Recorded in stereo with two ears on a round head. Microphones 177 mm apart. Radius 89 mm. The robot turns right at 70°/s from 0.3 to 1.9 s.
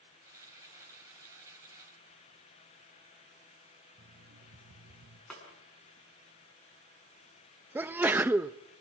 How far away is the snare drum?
About 7 m.